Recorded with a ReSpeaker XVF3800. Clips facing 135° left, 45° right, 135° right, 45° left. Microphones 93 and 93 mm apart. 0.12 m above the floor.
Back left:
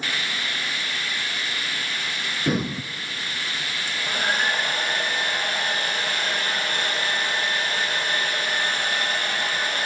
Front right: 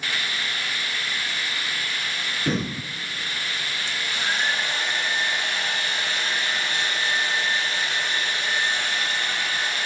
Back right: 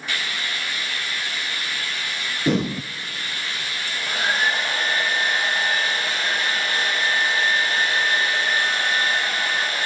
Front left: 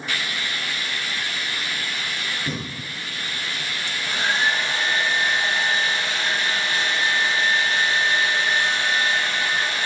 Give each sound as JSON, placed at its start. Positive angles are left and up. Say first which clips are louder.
{"t": 2.5, "sound": "breathing", "louder": "back left 2 dB, back right 9 dB", "azimuth_deg": -145, "distance_m": 0.6}
{"t": 3.9, "sound": "a hair dryer", "louder": "back left 3 dB, back right 1 dB", "azimuth_deg": 175, "distance_m": 4.0}